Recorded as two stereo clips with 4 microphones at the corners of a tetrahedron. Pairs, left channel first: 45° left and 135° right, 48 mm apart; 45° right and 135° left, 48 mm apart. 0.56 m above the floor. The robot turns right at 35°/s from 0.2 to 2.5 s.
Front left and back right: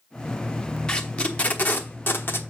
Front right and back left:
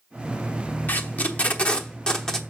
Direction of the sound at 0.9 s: 20° right.